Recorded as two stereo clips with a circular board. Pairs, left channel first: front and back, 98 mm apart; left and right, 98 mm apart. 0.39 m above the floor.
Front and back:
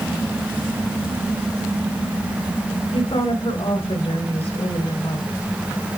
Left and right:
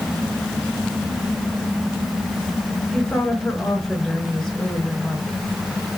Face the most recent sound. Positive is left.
turn(degrees=5)